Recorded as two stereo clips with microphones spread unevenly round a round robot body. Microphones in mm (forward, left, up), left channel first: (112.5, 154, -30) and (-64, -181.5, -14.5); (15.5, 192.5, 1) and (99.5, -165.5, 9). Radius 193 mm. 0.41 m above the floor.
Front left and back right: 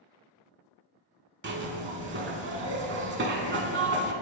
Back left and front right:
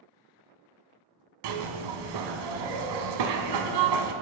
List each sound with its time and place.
1.4 s a zipper: 55° right, 0.8 m